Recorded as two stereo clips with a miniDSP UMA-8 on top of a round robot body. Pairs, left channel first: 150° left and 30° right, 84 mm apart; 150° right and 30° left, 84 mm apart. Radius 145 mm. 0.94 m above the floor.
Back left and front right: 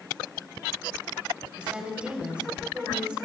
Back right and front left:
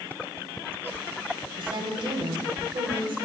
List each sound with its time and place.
1.6 s a woman speaking: 45° left, 4 m